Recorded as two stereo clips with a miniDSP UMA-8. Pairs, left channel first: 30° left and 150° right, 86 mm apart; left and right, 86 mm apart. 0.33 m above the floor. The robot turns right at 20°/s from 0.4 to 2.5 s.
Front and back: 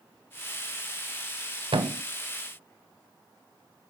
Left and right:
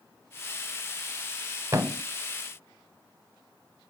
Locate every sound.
1.7 s a thud: 145° right, 0.5 m; by 2.0 s 135° right, 0.5 m